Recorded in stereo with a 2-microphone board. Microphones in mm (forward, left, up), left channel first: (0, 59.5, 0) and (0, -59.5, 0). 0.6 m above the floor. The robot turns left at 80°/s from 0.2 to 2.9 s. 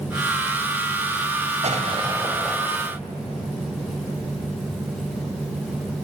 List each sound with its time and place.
1.6 s an explosion: 110° right, 2.5 m; by 2.6 s 175° left, 2.5 m